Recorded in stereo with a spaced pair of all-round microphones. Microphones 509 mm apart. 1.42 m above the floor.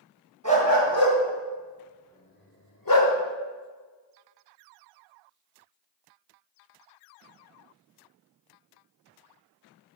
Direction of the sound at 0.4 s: 35° right (ahead or behind).